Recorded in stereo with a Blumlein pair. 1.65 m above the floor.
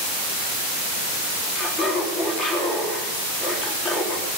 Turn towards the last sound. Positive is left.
turn(degrees=15)